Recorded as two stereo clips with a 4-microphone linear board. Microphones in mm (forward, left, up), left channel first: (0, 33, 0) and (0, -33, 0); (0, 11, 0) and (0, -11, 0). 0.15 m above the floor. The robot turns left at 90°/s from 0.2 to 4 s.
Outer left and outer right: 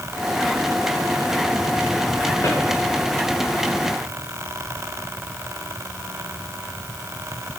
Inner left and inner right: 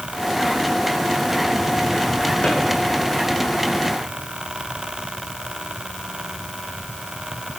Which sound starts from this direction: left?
A drawer, at 2.4 s.